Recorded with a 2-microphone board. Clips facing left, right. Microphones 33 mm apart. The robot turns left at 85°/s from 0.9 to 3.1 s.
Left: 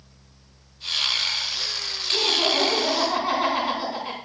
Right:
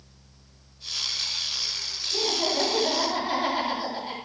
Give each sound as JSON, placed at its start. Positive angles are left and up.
{"t": 2.1, "sound": "laughter", "azimuth_deg": 150, "distance_m": 7.5}